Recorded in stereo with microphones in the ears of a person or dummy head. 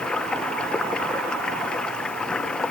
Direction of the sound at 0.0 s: 10° left (ahead or behind).